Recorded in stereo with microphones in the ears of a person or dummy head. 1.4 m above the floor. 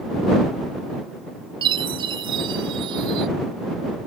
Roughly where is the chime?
Right.